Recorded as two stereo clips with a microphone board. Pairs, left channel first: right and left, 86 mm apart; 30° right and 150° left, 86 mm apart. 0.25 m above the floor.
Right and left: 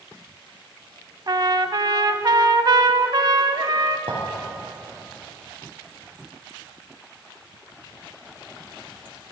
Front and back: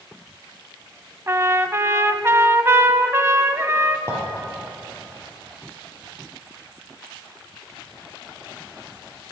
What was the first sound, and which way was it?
A trumpet, 100° left.